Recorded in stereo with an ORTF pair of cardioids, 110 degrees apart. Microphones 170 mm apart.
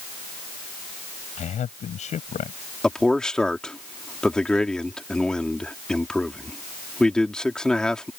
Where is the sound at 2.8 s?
5° left.